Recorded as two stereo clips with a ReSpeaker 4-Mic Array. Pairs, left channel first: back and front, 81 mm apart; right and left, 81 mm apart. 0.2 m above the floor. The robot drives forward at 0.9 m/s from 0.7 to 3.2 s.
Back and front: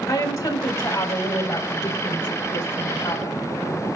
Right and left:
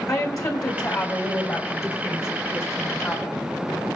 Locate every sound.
0.1 s a woman speaking: 130° right, 3.5 m; by 3.4 s 150° right, 5 m